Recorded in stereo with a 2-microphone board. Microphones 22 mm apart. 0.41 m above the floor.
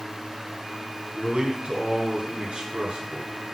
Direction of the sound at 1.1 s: 60° right (ahead or behind).